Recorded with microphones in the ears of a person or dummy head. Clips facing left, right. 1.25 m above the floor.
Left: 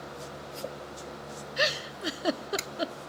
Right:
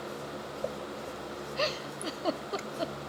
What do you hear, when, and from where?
1.6 s a giggle: 15° left (ahead or behind), 0.6 m